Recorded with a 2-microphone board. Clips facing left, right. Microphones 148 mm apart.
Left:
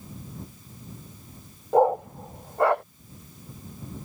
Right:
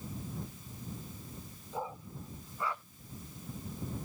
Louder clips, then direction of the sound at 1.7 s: Left 21 dB; 65° left (ahead or behind).